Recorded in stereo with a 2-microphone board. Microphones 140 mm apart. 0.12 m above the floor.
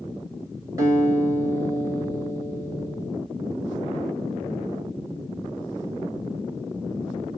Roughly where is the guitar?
Right.